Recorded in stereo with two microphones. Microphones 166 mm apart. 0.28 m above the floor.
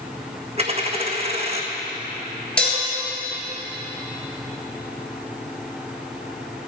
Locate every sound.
0.6 s a dropped coin: 40° right (ahead or behind), 1.3 m
2.6 s dishes clattering: 5° left (ahead or behind), 3.5 m